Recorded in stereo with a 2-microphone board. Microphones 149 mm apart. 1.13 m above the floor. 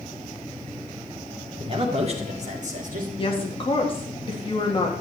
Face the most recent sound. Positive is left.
turn(degrees=35)  # may be behind; listen again after turning